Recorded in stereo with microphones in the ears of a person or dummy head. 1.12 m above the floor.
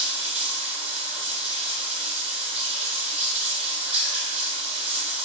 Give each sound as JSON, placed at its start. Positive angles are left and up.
{"t": 0.0, "sound": "running water", "side_deg": -30, "distance_m": 1.5}